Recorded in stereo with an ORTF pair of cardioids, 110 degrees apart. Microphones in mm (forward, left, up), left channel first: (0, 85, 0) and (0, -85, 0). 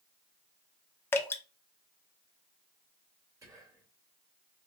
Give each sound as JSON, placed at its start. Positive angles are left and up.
{"t": 1.1, "sound": "dripping", "azimuth_deg": 15, "distance_m": 0.8}
{"t": 3.4, "sound": "whispering", "azimuth_deg": -20, "distance_m": 1.7}